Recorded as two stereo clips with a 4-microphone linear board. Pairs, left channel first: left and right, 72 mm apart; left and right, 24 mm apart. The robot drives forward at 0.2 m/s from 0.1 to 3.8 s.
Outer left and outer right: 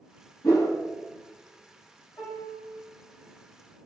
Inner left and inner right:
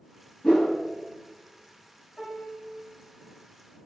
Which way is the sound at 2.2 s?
50° left (ahead or behind).